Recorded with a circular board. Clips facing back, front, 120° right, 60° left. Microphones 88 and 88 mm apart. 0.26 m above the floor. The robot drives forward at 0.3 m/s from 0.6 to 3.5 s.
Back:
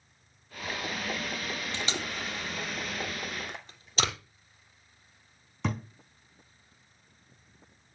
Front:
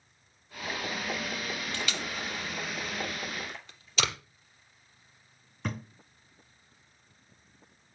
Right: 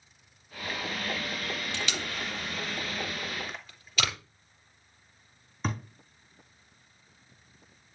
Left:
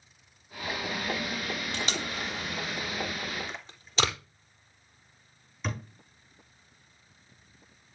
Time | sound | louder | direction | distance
1.7 | tape being pulled | back 1 dB, left 1 dB | 120° left | 3 m
3.5 | a splash | back 2 dB, left 1 dB | 155° left | 2.5 m
5.6 | a thud | back 4 dB, right 2 dB | 175° right | 4 m